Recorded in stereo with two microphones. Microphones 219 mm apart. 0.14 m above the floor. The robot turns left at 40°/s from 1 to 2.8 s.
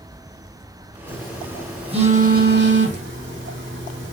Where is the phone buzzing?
5° left (ahead or behind), 4.5 m; by 4.1 s 60° right (ahead or behind), 4.5 m.